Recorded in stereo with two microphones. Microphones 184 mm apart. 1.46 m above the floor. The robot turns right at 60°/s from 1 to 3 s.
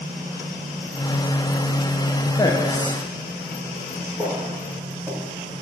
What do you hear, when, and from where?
2.4 s a man speaking: 20° left, 0.7 m; by 3.0 s 55° left, 0.7 m
4.2 s footsteps: 15° right (ahead or behind), 2 m